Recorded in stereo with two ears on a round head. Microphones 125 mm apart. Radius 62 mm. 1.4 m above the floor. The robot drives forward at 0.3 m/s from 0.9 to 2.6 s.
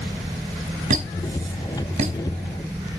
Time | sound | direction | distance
0.9 | a squeak | 55° right (ahead or behind) | 3 m